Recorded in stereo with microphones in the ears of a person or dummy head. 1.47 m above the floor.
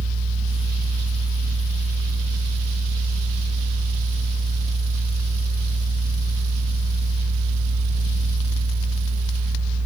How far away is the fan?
About 1.2 m.